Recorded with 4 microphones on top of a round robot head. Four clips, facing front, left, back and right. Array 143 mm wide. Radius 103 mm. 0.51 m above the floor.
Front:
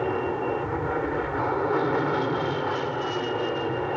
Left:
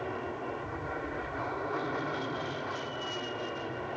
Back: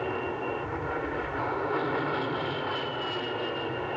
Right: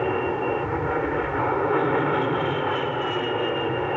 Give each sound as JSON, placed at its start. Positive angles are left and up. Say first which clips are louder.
{"t": 0.0, "sound": "an aircraft", "louder": "right 12 dB, front 5 dB", "azimuth_deg": -65}